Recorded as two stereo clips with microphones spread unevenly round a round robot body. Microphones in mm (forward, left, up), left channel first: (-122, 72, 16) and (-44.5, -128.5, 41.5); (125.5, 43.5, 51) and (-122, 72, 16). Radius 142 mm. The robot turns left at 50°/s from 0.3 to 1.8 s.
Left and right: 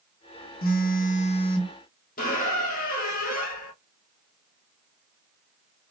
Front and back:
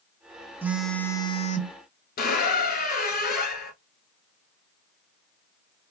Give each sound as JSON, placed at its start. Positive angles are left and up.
{"t": 0.6, "sound": "a phone buzzing", "azimuth_deg": 100, "distance_m": 1.0}
{"t": 2.2, "sound": "a squeak", "azimuth_deg": 50, "distance_m": 1.3}